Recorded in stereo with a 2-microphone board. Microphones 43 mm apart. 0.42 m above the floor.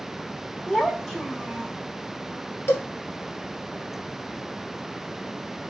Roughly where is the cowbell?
Left.